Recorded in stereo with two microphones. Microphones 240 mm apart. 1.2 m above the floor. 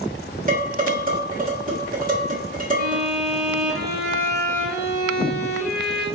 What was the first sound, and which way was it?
Dishes clattering, 35° right (ahead or behind).